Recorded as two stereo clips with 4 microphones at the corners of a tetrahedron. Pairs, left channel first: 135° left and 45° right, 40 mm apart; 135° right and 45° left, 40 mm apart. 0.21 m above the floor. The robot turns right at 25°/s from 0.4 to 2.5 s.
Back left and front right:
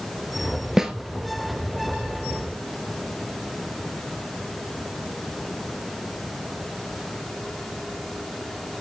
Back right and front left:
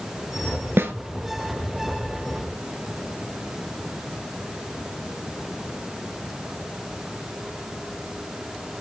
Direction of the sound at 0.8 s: 30° left.